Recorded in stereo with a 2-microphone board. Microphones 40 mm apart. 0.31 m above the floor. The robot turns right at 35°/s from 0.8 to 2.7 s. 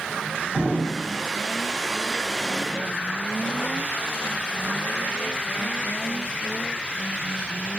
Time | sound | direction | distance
0.5 | an explosion | centre (ahead or behind) | 1.8 m